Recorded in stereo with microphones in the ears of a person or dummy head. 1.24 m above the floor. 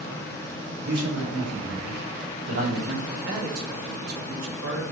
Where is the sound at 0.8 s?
75° right (ahead or behind), 4 m; by 3.0 s 70° right (ahead or behind), 3 m.